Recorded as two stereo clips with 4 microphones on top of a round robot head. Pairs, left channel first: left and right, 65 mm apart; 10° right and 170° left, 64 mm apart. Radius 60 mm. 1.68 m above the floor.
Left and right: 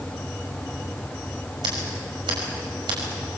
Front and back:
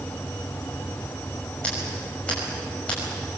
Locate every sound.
1.6 s scissors: 85° right, 6 m